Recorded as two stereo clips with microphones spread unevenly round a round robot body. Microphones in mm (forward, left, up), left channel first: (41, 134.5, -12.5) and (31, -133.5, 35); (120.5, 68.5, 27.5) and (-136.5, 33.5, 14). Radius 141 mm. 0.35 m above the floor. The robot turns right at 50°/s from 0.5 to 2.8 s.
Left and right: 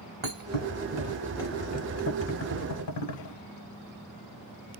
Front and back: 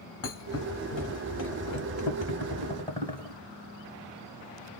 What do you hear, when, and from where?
0.2 s a thud: 35° right, 1.0 m; by 3.4 s 80° left, 1.0 m